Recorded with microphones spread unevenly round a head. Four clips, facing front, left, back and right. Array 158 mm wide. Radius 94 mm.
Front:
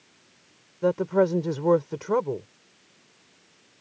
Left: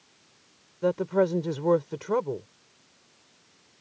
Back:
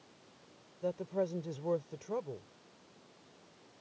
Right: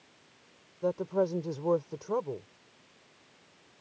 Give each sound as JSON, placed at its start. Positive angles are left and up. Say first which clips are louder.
{"t": 0.8, "sound": "a woman speaking", "louder": "left 5 dB, front 13 dB", "azimuth_deg": 25}